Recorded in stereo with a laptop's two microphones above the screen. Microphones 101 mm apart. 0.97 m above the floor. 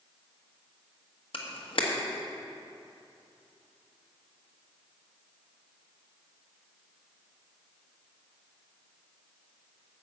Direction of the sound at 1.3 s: 65° left (ahead or behind).